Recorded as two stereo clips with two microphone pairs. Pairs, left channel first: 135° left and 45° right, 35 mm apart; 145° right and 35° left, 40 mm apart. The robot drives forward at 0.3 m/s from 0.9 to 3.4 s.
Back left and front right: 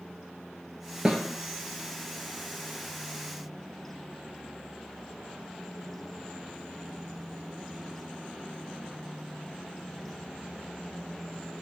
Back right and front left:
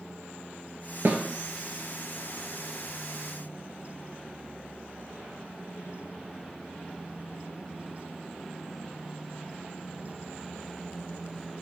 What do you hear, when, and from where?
1.1 s a snare drum: 25° left, 1.2 m